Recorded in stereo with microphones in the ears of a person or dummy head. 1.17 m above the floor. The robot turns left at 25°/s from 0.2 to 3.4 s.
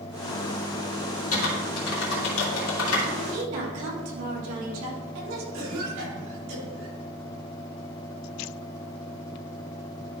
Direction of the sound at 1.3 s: 50° left (ahead or behind).